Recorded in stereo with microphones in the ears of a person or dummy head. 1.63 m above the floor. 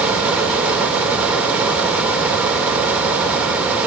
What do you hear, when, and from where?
0.0 s a fan: 5° right (ahead or behind), 2.5 m